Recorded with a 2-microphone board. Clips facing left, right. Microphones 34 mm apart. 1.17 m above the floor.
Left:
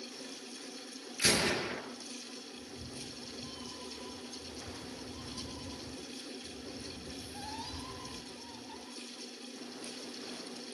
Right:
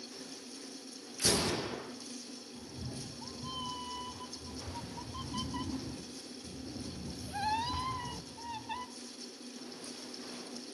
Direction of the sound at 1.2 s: 70° left (ahead or behind).